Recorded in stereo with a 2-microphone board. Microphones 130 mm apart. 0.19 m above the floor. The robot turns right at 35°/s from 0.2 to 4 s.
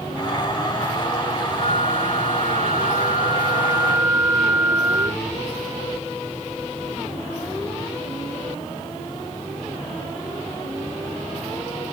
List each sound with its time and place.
1.6 s a flute: 100° right; by 5.2 s 15° right